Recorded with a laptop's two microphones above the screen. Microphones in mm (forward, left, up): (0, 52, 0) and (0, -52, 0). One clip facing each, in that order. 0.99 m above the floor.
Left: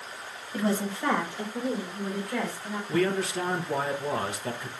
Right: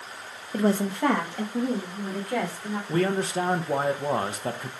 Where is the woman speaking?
35° right (ahead or behind), 0.6 m; by 2.8 s 80° right, 3.5 m.